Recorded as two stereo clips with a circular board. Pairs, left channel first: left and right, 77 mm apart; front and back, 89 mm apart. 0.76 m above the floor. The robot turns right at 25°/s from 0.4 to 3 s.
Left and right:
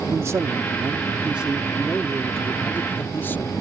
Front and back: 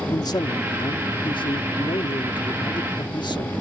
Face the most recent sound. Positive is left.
turn(degrees=25)